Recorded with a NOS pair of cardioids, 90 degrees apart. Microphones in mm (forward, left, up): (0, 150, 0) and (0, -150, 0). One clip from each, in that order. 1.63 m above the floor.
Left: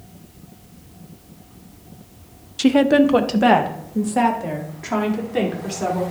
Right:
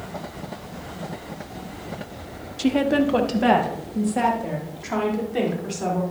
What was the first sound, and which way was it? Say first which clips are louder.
A woman speaking: left 6 dB; 25° left.